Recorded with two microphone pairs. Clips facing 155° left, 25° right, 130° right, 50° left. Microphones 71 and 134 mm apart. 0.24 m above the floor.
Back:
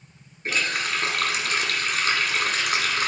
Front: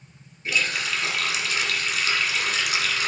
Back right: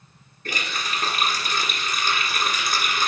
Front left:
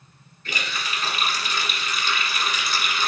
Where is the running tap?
165° right, 1.7 m.